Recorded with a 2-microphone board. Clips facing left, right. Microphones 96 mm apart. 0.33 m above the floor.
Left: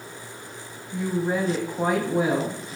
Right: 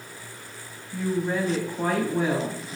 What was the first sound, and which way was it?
A woman speaking, 10° left (ahead or behind).